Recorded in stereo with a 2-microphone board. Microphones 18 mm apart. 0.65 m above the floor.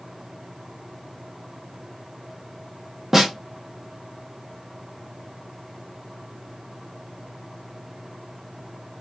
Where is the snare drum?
25° right (ahead or behind), 0.9 m.